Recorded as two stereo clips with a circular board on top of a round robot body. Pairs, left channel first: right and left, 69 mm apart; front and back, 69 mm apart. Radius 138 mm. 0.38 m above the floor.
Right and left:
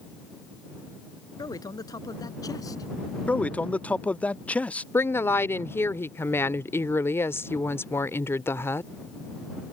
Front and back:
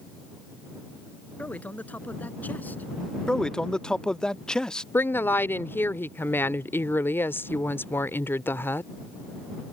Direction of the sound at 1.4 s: 70° right.